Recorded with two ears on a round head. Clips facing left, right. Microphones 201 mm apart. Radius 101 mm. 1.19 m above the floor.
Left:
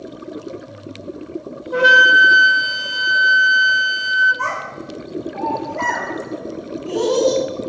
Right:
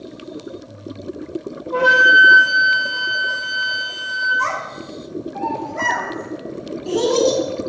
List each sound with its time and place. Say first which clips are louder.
1.7 s a flute: left 1 dB; 25° left (ahead or behind), 0.9 m
4.4 s a child speaking: even; 20° right (ahead or behind), 3 m